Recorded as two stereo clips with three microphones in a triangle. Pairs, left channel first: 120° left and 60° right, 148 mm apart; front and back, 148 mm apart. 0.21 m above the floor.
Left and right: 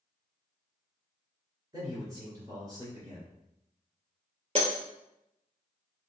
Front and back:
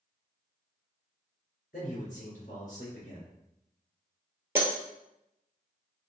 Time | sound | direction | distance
1.7 | a man speaking | 5° right | 2.5 m
4.5 | breaking glass | 110° right | 1.4 m